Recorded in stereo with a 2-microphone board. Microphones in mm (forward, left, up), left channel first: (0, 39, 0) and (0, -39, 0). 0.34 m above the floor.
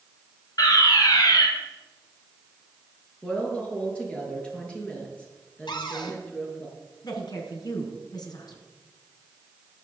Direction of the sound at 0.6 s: 55° left (ahead or behind).